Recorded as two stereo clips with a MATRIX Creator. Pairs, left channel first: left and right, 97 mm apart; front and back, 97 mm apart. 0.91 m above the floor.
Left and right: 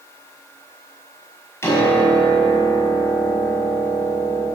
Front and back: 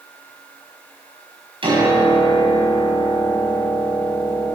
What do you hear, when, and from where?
1.6 s a piano: 155° left, 5 m